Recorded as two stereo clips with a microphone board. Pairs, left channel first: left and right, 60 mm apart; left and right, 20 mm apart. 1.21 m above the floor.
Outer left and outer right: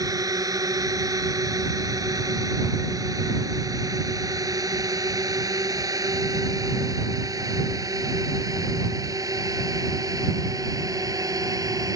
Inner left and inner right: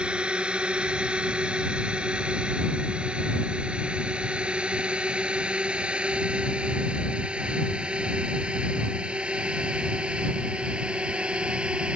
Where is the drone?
85° right.